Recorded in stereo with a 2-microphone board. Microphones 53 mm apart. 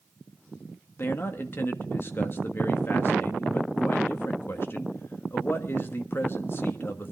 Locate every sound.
1.0 s a man speaking: 45° left (ahead or behind), 1.4 m